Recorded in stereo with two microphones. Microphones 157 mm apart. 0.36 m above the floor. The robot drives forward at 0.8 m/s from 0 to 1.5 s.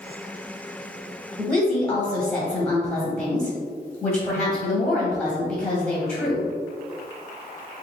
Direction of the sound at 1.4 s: 5° left (ahead or behind).